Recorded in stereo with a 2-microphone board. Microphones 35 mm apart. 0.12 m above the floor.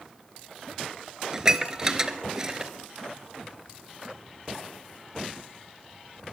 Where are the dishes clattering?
20° right (ahead or behind), 1.5 m.